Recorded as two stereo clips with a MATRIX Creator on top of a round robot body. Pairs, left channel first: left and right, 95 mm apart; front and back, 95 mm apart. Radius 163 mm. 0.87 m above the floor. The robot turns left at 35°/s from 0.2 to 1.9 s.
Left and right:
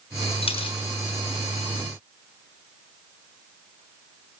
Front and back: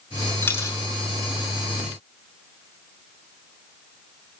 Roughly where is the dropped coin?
Left.